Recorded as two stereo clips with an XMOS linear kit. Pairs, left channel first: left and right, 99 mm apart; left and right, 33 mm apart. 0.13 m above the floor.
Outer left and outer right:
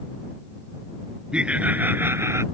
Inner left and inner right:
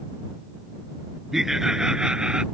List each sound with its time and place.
1.3 s laughter: 10° right (ahead or behind); by 2.4 s 30° right (ahead or behind)